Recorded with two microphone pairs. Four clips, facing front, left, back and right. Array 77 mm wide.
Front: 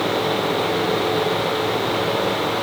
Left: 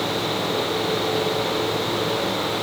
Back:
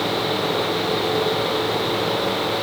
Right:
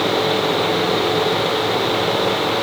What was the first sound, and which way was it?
Only background noise.